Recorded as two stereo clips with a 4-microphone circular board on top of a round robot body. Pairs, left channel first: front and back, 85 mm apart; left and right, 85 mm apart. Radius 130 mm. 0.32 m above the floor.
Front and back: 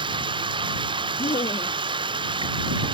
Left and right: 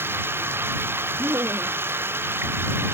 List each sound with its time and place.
0.0 s running water: 155° right
1.2 s laughter: 25° right